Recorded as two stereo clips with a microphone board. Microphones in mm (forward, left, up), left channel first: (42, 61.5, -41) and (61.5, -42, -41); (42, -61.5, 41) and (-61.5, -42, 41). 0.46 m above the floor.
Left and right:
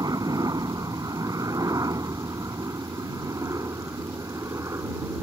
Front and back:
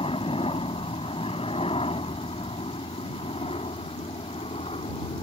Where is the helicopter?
30° right; by 5.2 s 20° right.